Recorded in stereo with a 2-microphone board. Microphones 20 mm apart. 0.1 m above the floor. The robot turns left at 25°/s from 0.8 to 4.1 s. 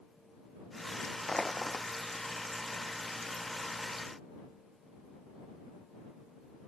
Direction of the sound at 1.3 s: 40° left (ahead or behind).